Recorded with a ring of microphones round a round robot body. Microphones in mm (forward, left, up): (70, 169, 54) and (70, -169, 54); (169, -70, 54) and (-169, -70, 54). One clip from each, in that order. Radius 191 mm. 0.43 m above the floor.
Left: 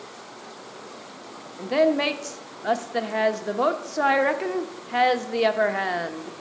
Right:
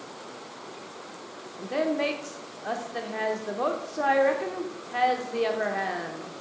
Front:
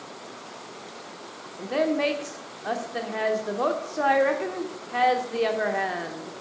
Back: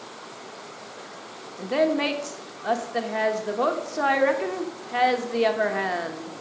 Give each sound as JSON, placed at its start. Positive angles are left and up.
{"t": 1.6, "sound": "a woman speaking", "azimuth_deg": 105, "distance_m": 0.8}